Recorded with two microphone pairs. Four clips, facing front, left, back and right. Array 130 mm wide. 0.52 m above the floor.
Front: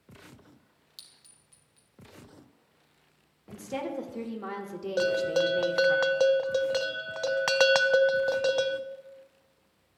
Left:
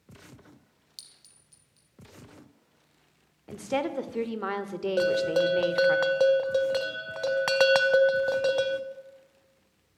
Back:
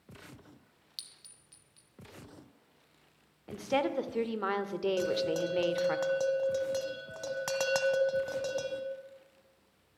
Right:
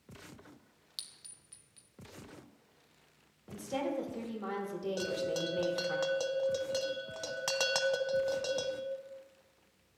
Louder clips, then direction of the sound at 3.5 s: Left 6 dB, back 4 dB; 140° left.